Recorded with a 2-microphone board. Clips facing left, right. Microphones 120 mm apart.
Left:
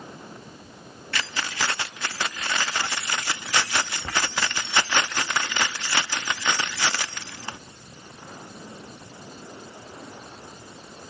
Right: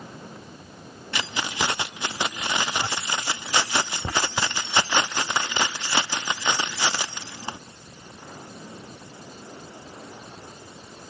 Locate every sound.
1.1 s keys jangling: 20° right (ahead or behind), 0.5 m